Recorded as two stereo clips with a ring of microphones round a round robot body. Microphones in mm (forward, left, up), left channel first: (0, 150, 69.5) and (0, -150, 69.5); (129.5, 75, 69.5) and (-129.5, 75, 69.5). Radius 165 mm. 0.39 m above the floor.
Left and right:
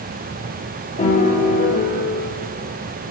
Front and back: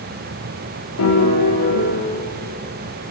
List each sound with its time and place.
1.0 s a piano: 20° left, 4.5 m